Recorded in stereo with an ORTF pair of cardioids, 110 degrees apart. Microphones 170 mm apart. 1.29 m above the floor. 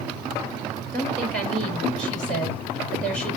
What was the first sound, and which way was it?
A woman speaking, 10° left.